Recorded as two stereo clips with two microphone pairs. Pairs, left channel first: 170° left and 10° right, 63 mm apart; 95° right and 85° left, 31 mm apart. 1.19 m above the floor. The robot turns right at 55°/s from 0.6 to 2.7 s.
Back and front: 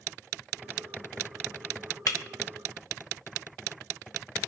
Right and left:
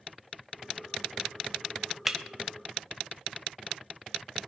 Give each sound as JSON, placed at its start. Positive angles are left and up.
{"t": 2.1, "sound": "breaking glass", "azimuth_deg": 165, "distance_m": 0.9}